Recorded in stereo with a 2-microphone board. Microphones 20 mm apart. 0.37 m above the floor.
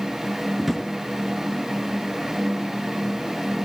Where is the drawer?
5° right (ahead or behind), 2.5 m.